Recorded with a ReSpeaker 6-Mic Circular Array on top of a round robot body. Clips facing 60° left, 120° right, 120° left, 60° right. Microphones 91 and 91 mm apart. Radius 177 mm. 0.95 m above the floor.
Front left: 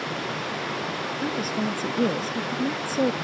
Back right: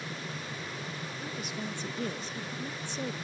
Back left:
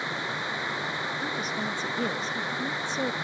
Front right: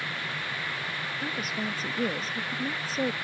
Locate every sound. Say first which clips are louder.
0.0 s running water: front left 10 dB, back left 3 dB; 50° left
1.2 s a woman speaking: front left 12 dB, front right 1 dB; 25° left